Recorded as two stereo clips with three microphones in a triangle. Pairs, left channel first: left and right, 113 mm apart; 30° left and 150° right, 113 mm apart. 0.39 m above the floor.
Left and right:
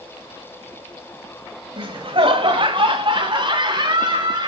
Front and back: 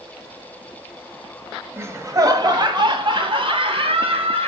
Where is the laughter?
90° right, 2 m; by 4.5 s 130° right, 4 m.